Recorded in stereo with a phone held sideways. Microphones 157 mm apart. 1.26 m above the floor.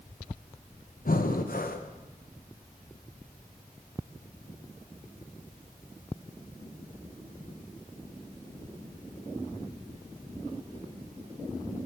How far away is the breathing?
About 0.7 m.